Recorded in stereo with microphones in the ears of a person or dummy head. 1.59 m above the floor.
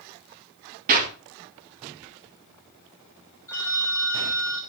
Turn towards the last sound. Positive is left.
turn(degrees=15)  # may be behind; listen again after turning